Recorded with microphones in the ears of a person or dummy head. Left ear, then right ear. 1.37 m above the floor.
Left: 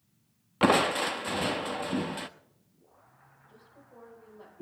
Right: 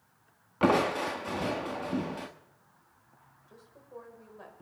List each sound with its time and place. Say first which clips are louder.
0.6 s crushing: left 2 dB; 25° left (ahead or behind), 0.8 m
3.5 s a woman speaking: right 7 dB; 40° right (ahead or behind), 5 m